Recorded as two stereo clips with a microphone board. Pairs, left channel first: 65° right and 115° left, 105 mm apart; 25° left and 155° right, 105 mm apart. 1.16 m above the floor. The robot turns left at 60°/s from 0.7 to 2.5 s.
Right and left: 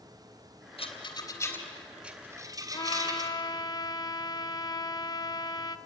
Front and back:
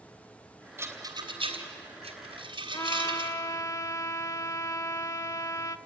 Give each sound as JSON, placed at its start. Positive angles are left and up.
{"t": 0.8, "sound": "a rattle", "azimuth_deg": -95, "distance_m": 3.0}
{"t": 2.7, "sound": "a trumpet", "azimuth_deg": -30, "distance_m": 0.7}